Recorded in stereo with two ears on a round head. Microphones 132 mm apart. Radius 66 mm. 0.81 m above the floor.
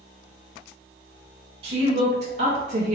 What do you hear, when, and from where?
1.6 s a woman speaking: 40° right (ahead or behind), 1.4 m; by 3.0 s 55° right (ahead or behind), 0.9 m